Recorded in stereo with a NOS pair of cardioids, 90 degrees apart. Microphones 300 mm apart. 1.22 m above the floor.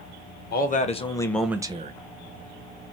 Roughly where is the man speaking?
Ahead left.